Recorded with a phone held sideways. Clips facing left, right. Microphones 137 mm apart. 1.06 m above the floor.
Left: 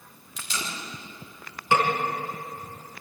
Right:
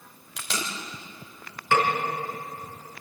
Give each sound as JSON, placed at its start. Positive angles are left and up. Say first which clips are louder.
{"t": 0.4, "sound": "tape being pulled", "louder": "right 2 dB", "side_deg": -90, "distance_m": 3.0}
{"t": 1.7, "sound": "a snare drum", "louder": "even", "side_deg": 20, "distance_m": 4.0}